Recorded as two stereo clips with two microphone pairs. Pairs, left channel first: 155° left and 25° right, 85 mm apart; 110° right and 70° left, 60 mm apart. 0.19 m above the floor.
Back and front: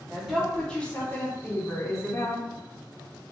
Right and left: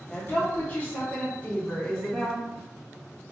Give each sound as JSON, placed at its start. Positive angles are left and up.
{"t": 0.1, "sound": "a woman speaking", "azimuth_deg": -115, "distance_m": 1.3}